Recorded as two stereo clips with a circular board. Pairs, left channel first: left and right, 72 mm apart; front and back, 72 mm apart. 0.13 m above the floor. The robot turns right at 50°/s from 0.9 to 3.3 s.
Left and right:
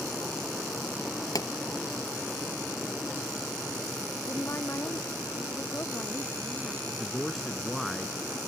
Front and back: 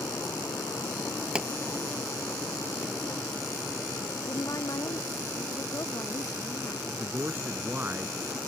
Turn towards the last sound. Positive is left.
turn(degrees=180)